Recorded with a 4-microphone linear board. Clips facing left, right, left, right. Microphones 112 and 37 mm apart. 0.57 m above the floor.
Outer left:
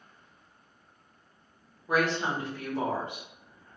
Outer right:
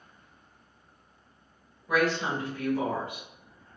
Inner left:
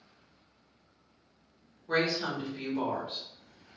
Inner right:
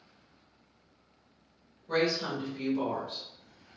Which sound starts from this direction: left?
A woman speaking, at 1.9 s.